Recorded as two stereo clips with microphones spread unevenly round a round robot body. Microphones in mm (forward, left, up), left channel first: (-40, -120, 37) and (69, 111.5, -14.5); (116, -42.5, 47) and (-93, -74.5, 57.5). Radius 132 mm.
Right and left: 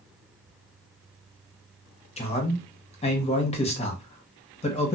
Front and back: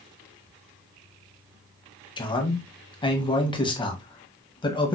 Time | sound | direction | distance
2.2 | a man speaking | 45° right | 0.9 m